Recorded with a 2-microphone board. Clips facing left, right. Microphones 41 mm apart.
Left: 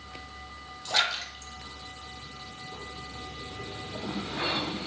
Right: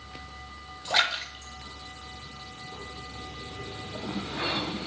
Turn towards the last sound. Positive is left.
turn(degrees=-20)  # may be behind; listen again after turning